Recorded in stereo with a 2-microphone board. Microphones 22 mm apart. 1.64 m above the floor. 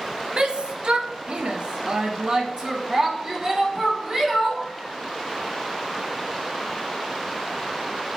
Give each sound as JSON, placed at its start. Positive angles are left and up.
{"t": 0.4, "sound": "a shout", "side_deg": -50, "distance_m": 1.1}